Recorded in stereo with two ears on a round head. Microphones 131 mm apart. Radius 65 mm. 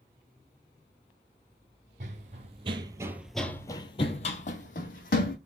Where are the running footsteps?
55° right (ahead or behind), 0.9 m; by 5.4 s 70° left (ahead or behind), 1.3 m.